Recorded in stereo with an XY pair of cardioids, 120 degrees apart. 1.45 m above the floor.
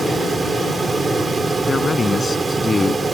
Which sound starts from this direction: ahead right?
A fan, at 0.0 s.